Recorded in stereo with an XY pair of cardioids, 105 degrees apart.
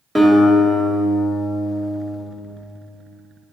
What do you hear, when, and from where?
0.1 s a guitar: 15° right, 1.9 m